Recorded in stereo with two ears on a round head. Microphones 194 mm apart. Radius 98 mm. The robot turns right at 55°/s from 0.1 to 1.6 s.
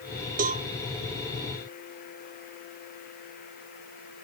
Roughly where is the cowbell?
Right.